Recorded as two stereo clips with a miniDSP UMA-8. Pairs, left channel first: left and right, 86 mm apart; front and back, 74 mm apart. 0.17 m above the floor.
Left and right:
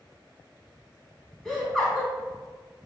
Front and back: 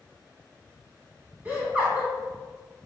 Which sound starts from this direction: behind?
Laughter, at 1.4 s.